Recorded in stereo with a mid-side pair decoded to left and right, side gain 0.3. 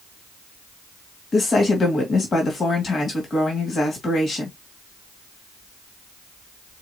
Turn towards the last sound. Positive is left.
turn(degrees=65)